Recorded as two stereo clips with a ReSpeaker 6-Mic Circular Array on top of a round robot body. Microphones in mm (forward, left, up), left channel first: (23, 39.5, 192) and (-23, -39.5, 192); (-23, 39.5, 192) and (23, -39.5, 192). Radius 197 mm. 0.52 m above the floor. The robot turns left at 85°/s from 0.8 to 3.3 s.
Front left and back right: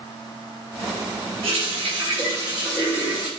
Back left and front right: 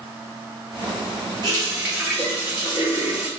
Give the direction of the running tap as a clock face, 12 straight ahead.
3 o'clock.